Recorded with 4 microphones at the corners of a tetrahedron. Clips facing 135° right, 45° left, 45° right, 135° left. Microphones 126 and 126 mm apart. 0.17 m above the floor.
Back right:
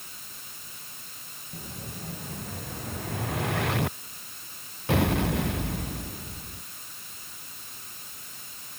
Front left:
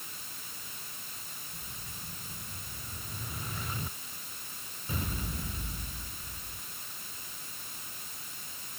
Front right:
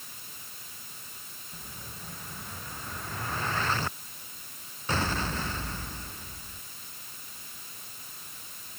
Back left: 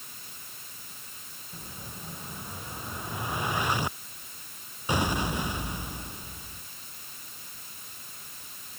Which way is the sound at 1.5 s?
150° right.